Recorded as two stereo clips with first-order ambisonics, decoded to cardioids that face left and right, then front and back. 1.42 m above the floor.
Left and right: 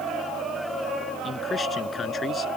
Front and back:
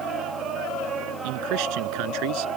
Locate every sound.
1.2 s a man speaking: 165° left; by 2.5 s 160° left